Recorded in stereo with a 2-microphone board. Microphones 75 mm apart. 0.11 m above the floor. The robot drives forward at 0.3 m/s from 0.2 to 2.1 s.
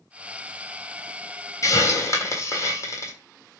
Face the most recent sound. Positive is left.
turn(degrees=40)  # may be behind; listen again after turning